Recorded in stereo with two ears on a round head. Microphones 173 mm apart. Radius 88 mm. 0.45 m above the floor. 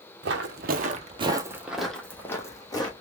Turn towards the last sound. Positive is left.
turn(degrees=20)  # may be behind; listen again after turning